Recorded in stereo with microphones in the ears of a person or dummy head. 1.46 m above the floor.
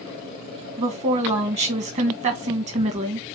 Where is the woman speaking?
30° right (ahead or behind), 1.1 m.